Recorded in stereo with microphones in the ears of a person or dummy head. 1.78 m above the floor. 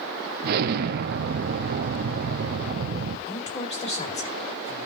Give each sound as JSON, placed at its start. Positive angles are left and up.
{"t": 0.4, "sound": "an explosion", "side_deg": -55, "distance_m": 1.0}
{"t": 3.3, "sound": "a woman speaking", "side_deg": 30, "distance_m": 2.0}